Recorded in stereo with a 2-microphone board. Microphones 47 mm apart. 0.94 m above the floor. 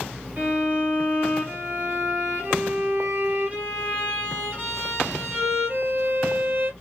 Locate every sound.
0.4 s a violin: 35° right (ahead or behind), 1.3 m